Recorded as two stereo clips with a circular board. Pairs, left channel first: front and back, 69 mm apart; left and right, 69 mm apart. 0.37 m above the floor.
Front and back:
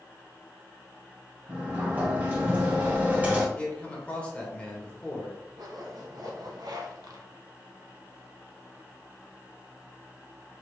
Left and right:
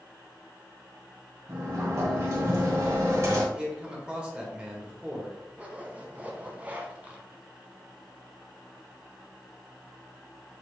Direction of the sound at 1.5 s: 120° right.